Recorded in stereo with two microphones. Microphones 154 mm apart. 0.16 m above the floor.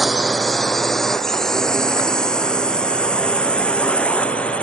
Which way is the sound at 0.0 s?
Centre (ahead or behind).